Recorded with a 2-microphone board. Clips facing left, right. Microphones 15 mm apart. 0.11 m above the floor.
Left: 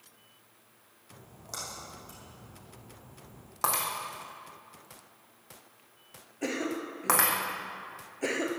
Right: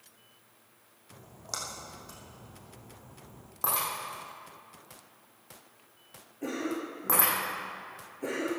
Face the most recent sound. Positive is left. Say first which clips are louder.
# left 1 dB
turn(degrees=50)  # may be behind; listen again after turning